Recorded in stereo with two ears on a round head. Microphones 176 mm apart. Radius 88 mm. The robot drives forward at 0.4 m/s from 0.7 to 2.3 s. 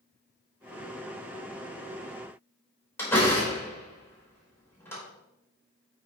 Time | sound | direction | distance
3.0 | a door slam | 15° left (ahead or behind) | 4.5 m